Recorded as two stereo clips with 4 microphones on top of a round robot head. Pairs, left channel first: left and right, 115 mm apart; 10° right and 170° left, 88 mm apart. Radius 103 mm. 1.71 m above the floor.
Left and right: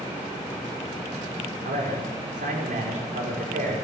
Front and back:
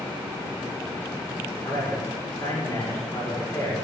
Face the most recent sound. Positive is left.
turn(degrees=-80)